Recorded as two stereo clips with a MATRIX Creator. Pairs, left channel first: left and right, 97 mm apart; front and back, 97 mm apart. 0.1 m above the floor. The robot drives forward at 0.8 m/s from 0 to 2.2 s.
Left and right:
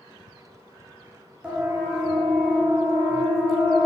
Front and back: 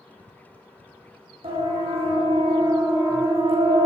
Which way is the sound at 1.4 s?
170° right.